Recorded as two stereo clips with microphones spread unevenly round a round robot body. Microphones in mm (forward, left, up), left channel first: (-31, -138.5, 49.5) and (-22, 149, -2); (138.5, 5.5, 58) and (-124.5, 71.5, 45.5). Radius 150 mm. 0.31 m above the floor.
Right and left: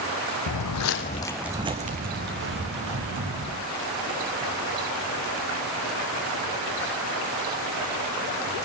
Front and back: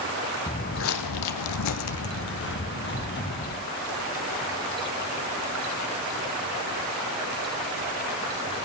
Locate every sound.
0.5 s footsteps: 85° right, 0.8 m; by 3.6 s 40° left, 2.5 m